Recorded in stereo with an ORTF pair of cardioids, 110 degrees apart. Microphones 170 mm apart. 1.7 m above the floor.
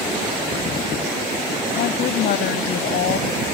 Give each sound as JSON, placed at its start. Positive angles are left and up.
{"t": 1.8, "sound": "a woman speaking", "azimuth_deg": 70}